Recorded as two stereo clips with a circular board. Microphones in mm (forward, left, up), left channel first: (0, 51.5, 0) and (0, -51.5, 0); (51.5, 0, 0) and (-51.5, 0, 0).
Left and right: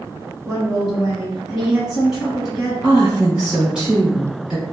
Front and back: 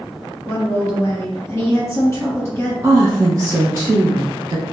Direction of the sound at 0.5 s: 5° right.